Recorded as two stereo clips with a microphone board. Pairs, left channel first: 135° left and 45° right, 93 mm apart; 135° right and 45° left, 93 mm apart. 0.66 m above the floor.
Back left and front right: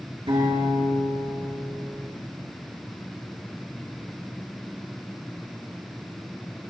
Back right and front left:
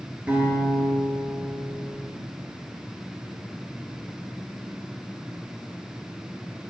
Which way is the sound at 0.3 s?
30° right.